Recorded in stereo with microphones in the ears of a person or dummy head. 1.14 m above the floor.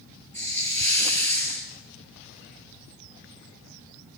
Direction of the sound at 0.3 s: 15° left (ahead or behind).